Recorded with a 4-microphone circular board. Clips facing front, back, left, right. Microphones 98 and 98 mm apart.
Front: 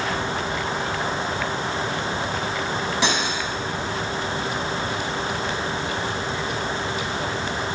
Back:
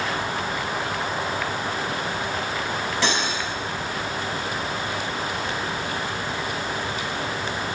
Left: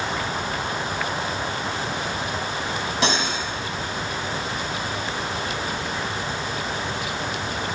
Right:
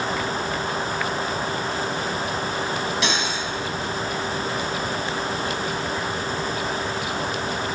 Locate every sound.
3.0 s cutlery clinking: 65° left, 0.9 m